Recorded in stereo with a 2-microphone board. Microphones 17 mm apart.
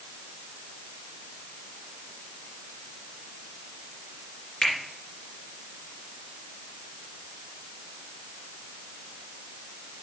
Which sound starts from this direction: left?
A finger snap, at 4.6 s.